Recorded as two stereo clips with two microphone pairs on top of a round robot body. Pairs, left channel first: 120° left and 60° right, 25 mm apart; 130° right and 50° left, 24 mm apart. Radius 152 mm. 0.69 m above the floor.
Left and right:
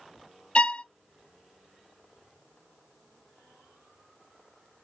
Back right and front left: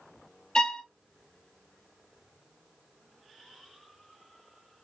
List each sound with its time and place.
0.6 s a violin: 165° left, 0.6 m